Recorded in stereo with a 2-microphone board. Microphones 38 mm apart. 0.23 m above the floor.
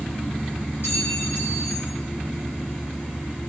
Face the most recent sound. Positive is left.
turn(degrees=70)  # may be behind; listen again after turning